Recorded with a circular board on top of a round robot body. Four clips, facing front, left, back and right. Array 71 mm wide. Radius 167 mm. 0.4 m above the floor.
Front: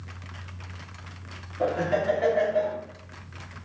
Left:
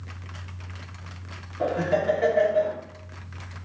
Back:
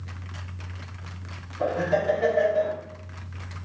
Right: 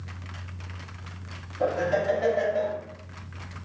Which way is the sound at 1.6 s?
65° left.